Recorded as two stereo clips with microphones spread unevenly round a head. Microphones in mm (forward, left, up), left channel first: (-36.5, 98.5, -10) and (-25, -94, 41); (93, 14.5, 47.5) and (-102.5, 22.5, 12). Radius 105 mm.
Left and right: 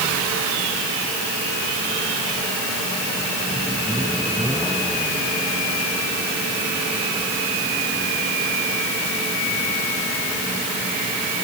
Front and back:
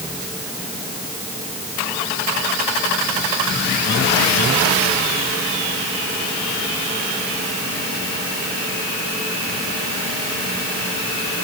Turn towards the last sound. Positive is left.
No sound to turn to.